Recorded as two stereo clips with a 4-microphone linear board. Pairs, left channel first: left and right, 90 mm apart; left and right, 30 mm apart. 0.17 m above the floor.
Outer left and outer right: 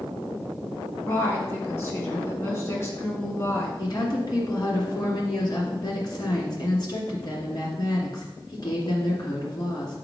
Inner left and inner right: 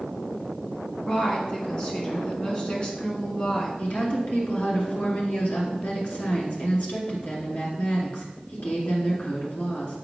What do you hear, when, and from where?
1.1 s a woman speaking: 30° left (ahead or behind), 2.5 m
3.8 s a woman speaking: 50° left (ahead or behind), 2.5 m